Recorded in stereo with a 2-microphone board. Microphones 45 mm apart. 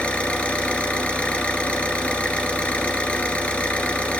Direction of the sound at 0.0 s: 25° left (ahead or behind).